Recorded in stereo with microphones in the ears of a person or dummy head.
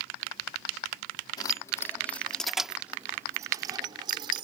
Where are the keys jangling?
25° left (ahead or behind); by 4.4 s 30° right (ahead or behind).